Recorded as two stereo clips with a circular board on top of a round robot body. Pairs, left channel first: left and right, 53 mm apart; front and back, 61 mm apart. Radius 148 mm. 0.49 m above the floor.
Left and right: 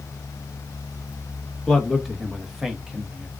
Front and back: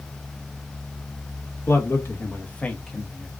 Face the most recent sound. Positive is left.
turn(degrees=-100)